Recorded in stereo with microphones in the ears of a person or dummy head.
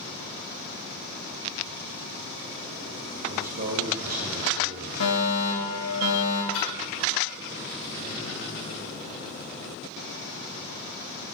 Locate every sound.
3.3 s a man speaking: 45° right (ahead or behind), 2 m
5.0 s a fire alarm: 75° left (ahead or behind), 3.5 m
6.5 s a splash: 65° left (ahead or behind), 4.5 m